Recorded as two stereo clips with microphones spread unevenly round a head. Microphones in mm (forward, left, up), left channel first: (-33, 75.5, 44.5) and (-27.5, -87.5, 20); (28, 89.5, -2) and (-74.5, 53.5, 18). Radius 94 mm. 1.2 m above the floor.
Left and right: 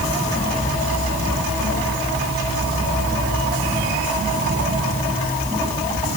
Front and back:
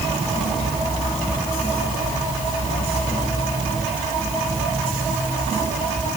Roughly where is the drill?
I don't hear a drill.